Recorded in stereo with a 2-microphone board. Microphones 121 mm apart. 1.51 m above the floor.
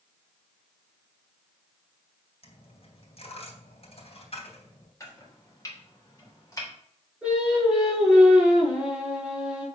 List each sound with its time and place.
2.4 s a dropped coin: 55° left (ahead or behind), 3 m
5.0 s chopping: 25° left (ahead or behind), 3 m
7.2 s singing: 5° right (ahead or behind), 4.5 m